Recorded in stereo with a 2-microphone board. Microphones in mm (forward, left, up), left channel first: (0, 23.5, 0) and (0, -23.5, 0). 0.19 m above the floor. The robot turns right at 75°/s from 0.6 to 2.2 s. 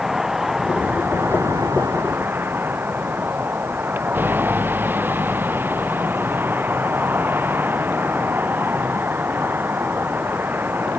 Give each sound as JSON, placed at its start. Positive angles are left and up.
{"t": 0.0, "sound": "a vehicle", "azimuth_deg": -170}